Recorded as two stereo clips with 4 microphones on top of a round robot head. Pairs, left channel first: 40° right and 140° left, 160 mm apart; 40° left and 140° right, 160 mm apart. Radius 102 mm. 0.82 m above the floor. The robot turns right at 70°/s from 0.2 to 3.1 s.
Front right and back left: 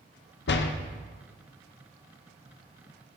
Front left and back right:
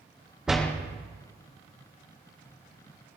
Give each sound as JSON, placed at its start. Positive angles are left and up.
{"t": 0.5, "sound": "a door slam", "azimuth_deg": -55, "distance_m": 0.6}